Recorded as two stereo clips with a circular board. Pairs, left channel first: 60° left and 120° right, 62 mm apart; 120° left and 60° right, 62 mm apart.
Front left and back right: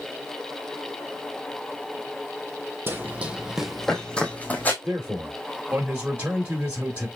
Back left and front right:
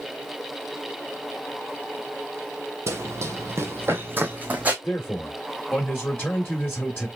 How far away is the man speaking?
About 1.3 m.